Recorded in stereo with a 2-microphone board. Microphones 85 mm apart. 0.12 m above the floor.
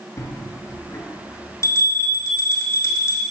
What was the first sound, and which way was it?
A bell, 35° left (ahead or behind).